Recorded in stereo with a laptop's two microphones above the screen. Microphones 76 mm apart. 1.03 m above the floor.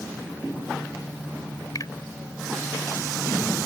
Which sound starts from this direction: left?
A finger snap, at 1.8 s.